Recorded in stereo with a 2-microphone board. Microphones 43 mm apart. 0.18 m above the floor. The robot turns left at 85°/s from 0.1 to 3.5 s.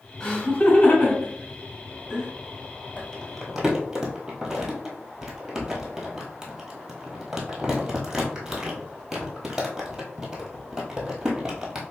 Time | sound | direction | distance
0.2 | laughter | 25° left (ahead or behind) | 1.5 m
3.0 | crumpling | 35° left (ahead or behind) | 1.1 m